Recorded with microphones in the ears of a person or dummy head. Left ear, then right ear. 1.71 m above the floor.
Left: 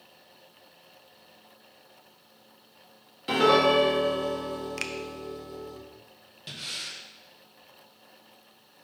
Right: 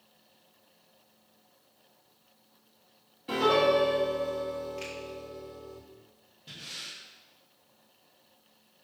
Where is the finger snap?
60° left (ahead or behind), 0.6 m.